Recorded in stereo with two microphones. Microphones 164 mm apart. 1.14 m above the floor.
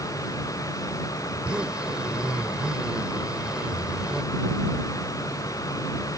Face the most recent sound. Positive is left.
turn(degrees=-5)  # may be behind; listen again after turning